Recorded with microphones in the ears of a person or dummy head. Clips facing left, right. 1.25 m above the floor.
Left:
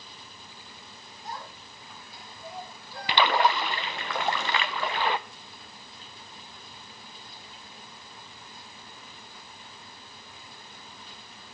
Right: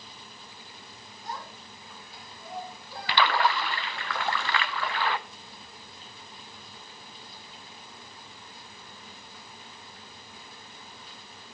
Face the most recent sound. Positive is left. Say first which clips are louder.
# left 2 dB
turn(degrees=15)  # may be behind; listen again after turning